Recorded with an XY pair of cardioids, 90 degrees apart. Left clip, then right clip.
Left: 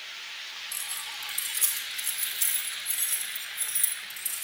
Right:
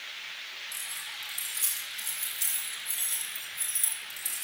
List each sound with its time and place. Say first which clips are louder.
0.7 s keys jangling: left 2 dB; 30° left, 5 m; by 4.4 s straight ahead, 3.5 m